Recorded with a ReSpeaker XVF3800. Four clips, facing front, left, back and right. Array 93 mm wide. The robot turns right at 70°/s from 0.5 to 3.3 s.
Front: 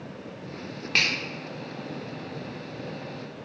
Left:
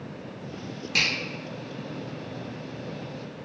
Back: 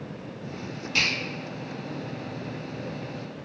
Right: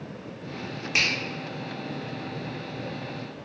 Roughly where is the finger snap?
Ahead right.